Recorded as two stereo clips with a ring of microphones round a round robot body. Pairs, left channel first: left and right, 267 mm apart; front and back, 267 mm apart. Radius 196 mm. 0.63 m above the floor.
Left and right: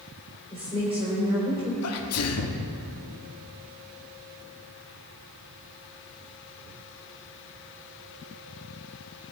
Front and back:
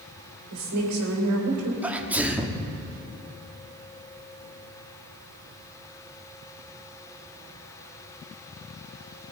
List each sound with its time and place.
0.5 s a woman speaking: 165° right, 2.5 m
1.8 s a sneeze: 95° left, 1.3 m